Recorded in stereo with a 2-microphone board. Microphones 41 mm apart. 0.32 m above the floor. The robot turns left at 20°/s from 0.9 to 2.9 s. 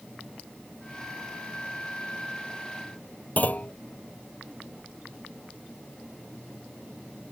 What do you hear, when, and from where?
3.4 s a clunk: 45° left (ahead or behind)